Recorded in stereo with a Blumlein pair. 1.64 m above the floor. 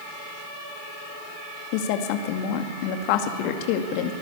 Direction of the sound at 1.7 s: 45° left.